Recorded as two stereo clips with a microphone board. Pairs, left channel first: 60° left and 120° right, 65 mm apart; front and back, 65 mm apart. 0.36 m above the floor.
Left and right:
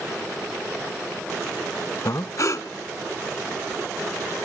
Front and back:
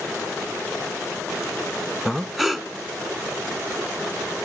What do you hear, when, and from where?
2.0 s breathing: 90° left, 0.7 m